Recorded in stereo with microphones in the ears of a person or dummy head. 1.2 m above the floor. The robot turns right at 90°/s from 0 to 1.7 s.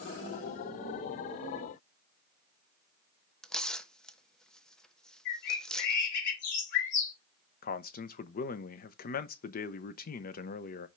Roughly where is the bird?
Left.